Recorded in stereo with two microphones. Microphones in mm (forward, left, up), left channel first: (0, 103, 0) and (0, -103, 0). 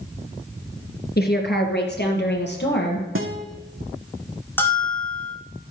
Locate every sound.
1.2 s a woman speaking: 50° left (ahead or behind), 2.5 m; by 3.0 s 60° left (ahead or behind), 4 m
3.1 s a guitar: 85° right, 1.8 m
4.6 s a bell: 10° left (ahead or behind), 3 m